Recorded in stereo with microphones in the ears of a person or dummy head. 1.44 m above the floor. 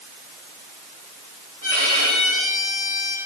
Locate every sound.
1.6 s a violin: 45° right (ahead or behind), 5 m